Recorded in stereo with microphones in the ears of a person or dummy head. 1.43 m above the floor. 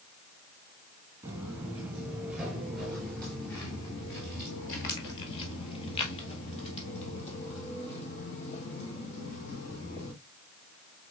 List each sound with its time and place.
1.2 s footsteps: 15° right (ahead or behind), 2 m; by 10.1 s 35° left (ahead or behind), 4 m